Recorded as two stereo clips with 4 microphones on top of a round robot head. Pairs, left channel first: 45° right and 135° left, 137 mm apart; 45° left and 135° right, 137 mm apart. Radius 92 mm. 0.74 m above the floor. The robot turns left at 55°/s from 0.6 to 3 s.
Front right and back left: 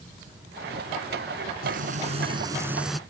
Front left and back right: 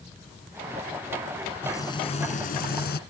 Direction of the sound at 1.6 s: 120° left.